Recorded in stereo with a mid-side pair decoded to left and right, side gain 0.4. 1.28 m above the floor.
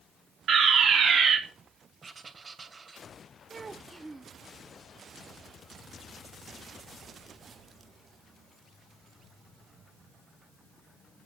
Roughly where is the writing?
Ahead right.